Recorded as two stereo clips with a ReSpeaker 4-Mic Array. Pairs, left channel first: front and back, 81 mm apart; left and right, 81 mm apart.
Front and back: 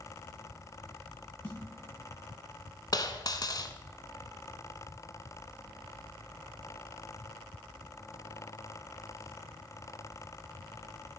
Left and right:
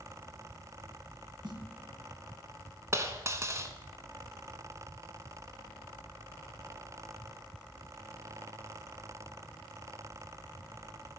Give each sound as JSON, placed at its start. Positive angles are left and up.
{"t": 1.4, "sound": "a snare drum", "azimuth_deg": -75, "distance_m": 2.5}
{"t": 2.9, "sound": "a dropped coin", "azimuth_deg": -35, "distance_m": 1.0}